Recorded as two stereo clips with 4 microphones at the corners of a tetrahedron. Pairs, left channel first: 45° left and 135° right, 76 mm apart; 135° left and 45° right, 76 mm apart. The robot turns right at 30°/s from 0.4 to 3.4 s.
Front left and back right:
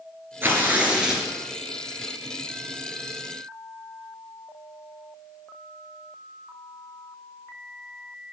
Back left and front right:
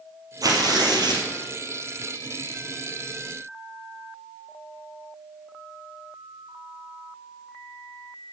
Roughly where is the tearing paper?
Right.